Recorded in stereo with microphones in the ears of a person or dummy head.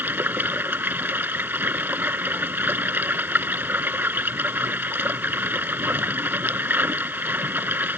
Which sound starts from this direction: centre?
Running water, at 0.0 s.